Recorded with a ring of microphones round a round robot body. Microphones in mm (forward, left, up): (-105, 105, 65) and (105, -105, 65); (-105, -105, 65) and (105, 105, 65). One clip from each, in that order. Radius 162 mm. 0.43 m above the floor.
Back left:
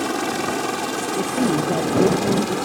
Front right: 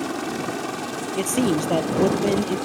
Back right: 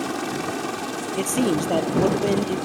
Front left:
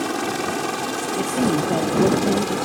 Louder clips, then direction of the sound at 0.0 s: Back left 4 dB, front left 3 dB; 105° left.